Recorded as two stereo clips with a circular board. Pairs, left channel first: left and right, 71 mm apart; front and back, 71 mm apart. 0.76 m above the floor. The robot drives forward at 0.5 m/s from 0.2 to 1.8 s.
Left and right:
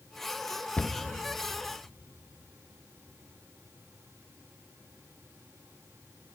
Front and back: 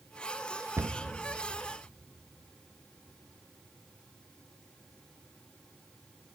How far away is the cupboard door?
About 0.6 m.